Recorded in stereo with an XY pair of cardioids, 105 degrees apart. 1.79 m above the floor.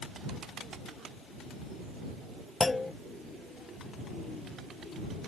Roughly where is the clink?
I don't hear a clink.